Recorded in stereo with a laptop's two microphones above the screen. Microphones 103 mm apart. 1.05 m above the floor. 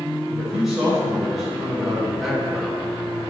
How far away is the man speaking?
About 4 m.